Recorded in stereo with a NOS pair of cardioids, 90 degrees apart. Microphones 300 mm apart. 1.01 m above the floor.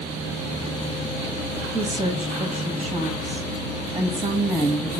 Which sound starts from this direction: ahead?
A woman speaking, at 1.7 s.